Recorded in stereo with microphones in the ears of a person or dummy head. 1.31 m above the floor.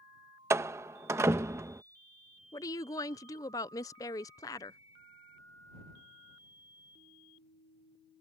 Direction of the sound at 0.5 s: 15° right (ahead or behind).